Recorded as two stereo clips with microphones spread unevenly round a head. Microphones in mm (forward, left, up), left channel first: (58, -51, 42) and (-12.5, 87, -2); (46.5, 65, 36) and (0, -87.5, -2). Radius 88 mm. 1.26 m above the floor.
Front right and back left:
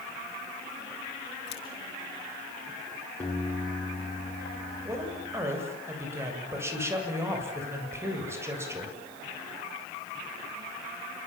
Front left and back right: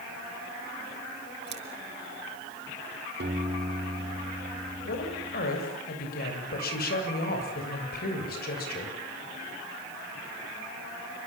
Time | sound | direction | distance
1.5 | scissors | 80° right | 5 m
3.2 | a piano | 140° right | 4 m
4.8 | a woman speaking | 45° left | 7.5 m